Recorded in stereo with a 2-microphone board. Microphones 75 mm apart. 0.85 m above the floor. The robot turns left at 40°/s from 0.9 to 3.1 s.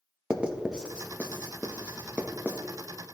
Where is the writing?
10° right (ahead or behind), 0.7 m; by 2.6 s 15° right (ahead or behind), 0.7 m.